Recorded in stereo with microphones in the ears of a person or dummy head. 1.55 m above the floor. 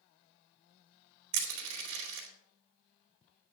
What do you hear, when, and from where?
1.3 s crushing: 80° right, 3.5 m